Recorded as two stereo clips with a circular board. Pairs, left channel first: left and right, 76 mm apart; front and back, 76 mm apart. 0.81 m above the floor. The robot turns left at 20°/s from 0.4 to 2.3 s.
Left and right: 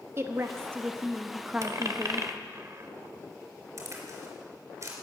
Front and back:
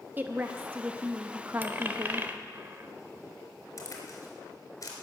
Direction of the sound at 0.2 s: 125° right.